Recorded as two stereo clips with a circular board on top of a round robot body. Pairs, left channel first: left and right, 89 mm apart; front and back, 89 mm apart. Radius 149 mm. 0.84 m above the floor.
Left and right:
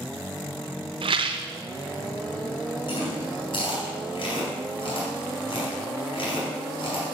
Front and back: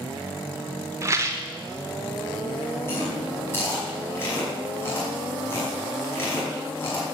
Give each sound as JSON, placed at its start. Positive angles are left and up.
{"t": 1.0, "sound": "a rattle", "azimuth_deg": -120, "distance_m": 0.9}
{"t": 2.9, "sound": "chewing", "azimuth_deg": 65, "distance_m": 5.0}